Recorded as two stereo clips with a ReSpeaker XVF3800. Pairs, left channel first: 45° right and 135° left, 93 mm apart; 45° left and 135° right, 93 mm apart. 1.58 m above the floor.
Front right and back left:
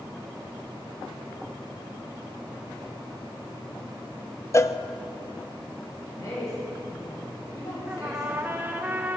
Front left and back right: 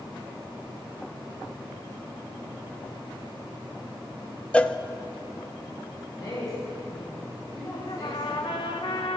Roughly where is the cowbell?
Ahead right.